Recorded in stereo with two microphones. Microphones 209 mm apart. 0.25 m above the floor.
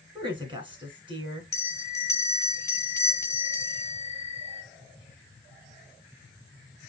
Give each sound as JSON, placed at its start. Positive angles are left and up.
{"t": 0.1, "sound": "a woman speaking", "side_deg": -25, "distance_m": 2.5}
{"t": 1.5, "sound": "a bell", "side_deg": 15, "distance_m": 1.0}